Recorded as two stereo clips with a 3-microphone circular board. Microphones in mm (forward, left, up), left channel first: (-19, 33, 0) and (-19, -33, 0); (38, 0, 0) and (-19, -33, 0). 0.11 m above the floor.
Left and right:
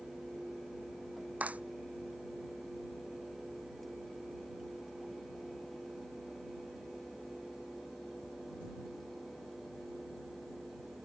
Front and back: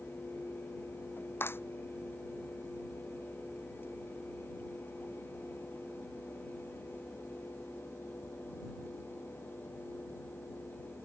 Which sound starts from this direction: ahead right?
A clap, at 1.4 s.